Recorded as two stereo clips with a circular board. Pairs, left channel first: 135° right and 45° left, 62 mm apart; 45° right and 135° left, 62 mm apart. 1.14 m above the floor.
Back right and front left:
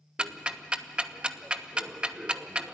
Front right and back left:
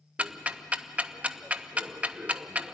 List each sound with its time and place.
0.2 s ticking: 95° left, 0.7 m